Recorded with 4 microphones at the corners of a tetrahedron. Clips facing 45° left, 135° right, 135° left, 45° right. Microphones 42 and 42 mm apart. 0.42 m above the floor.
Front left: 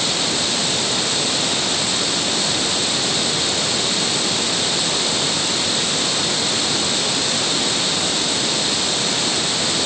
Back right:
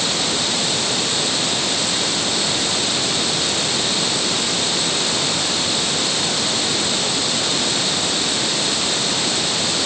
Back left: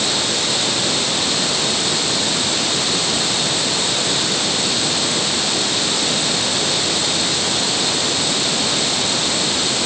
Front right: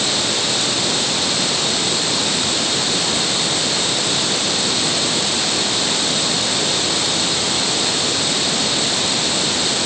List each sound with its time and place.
Only background noise.